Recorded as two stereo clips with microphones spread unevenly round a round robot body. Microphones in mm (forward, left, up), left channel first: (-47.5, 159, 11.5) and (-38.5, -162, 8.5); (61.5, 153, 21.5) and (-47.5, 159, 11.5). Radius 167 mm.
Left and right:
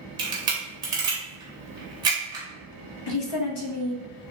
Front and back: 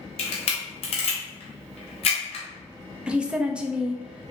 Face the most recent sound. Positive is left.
turn(degrees=95)